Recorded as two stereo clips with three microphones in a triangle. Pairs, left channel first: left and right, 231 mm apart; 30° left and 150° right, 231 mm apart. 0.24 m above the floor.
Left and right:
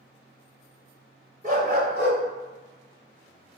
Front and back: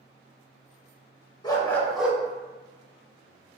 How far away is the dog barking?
About 0.9 m.